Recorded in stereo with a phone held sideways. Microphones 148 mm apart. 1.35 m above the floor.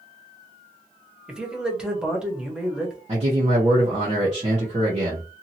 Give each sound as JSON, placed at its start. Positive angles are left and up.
{"t": 1.3, "sound": "a man speaking", "side_deg": -5, "distance_m": 1.3}
{"t": 3.1, "sound": "a man speaking", "side_deg": -45, "distance_m": 1.1}